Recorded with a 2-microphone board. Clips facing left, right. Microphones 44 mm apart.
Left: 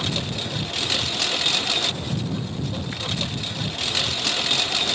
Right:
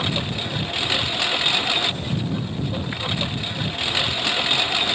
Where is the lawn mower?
20° right (ahead or behind).